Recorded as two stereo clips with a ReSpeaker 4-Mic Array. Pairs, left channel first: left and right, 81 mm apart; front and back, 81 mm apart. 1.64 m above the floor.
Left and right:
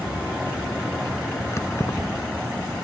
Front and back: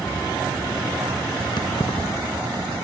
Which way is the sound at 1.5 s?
30° left.